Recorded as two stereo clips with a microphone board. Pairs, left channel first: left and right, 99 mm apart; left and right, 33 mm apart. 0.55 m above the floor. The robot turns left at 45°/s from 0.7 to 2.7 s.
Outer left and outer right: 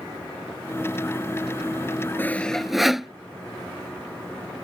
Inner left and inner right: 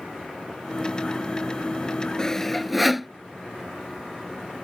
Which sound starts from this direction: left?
Sawing, at 2.2 s.